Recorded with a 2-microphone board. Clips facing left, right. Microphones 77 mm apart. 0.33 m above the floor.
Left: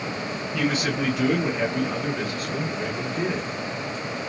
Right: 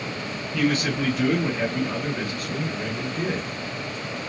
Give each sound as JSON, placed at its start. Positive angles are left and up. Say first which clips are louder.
{"t": 0.5, "sound": "a man speaking", "louder": "right 2 dB", "side_deg": 10, "distance_m": 1.6}